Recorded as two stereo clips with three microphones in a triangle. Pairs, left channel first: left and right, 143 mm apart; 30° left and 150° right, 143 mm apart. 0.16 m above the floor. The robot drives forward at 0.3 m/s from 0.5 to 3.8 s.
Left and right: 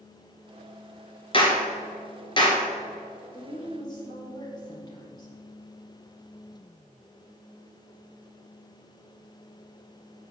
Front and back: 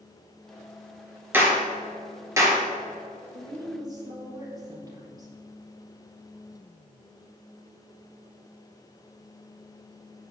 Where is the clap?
135° left, 2 m; by 2.6 s 145° left, 2.5 m.